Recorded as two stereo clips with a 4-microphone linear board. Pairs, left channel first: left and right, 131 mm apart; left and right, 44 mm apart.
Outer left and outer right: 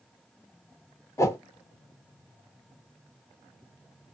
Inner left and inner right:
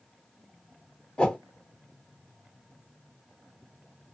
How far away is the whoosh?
About 0.7 m.